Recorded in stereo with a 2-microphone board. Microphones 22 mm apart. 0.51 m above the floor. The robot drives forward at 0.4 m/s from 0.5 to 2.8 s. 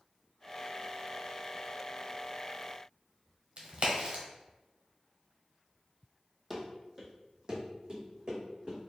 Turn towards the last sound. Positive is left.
turn(degrees=-50)  # may be behind; listen again after turning